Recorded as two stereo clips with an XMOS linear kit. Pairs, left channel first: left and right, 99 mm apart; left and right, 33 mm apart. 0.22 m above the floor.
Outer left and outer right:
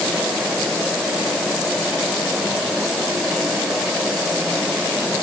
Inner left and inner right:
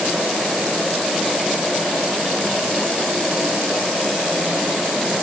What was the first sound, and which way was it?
Only background noise.